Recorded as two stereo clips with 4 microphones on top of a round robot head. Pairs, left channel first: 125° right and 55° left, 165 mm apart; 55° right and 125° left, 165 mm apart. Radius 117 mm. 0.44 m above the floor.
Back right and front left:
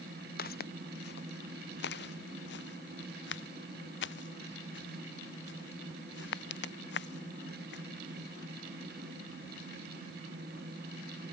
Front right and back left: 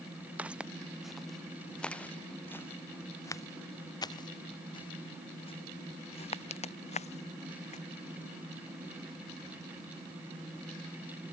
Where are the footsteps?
155° right; by 7.8 s 105° right.